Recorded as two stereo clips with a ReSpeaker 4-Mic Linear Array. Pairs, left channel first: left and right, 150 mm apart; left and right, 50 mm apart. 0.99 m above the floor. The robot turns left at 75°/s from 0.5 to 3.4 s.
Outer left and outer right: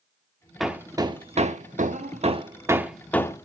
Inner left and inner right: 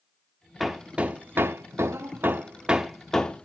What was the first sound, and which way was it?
Hammering, centre (ahead or behind).